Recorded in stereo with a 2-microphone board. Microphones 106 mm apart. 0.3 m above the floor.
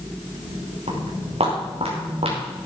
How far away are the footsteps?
About 5.5 m.